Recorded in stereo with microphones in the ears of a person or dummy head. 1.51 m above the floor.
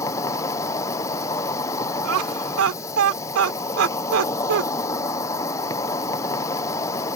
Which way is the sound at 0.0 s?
15° left (ahead or behind).